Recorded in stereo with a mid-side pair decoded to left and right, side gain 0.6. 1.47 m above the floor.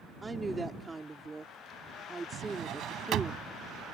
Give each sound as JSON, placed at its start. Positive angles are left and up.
{"t": 0.2, "sound": "a woman speaking", "azimuth_deg": -15}
{"t": 2.3, "sound": "a drawer", "azimuth_deg": -55}